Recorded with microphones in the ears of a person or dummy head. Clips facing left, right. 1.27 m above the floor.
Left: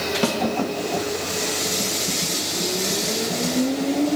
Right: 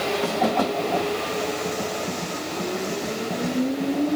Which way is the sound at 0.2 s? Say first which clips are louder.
Left 3 dB; 55° left (ahead or behind).